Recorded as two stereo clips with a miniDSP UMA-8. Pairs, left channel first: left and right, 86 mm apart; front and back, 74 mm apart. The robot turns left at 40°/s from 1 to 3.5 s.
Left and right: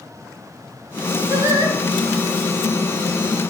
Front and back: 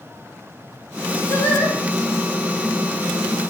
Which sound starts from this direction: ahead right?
Singing, at 1.3 s.